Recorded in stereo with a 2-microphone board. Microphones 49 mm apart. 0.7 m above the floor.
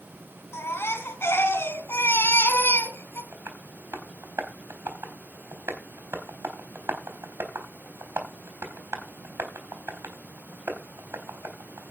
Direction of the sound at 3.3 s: 65° right (ahead or behind).